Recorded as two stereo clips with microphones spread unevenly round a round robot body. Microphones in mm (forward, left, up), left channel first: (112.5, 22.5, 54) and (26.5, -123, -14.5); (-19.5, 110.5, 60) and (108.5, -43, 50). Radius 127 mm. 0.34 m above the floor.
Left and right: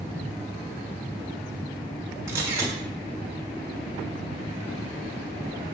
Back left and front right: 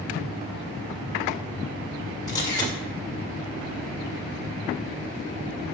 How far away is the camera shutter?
About 1.7 m.